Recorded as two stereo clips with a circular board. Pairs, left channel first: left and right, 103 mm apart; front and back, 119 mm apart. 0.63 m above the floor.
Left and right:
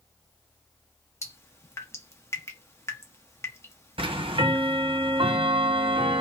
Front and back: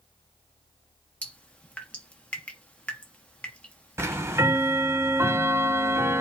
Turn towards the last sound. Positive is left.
turn(degrees=-115)